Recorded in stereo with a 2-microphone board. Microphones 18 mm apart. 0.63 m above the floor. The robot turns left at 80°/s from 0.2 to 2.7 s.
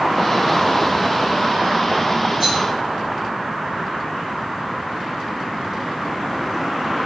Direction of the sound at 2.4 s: 25° right (ahead or behind).